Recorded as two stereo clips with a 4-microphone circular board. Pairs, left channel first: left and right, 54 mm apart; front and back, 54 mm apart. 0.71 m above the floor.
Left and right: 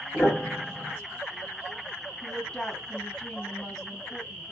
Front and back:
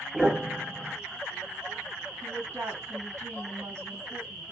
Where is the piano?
130° left, 1.3 m.